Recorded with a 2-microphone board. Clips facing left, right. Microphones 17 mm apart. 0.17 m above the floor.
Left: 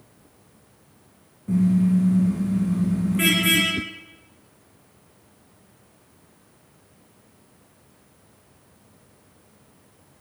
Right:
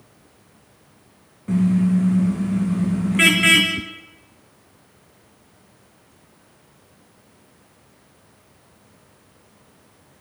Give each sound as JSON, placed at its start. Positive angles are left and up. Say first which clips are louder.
{"t": 1.5, "sound": "a car horn", "louder": "right 1 dB", "side_deg": -40, "distance_m": 6.5}
{"t": 3.8, "sound": "a whoosh", "louder": "left 1 dB", "side_deg": 55, "distance_m": 0.6}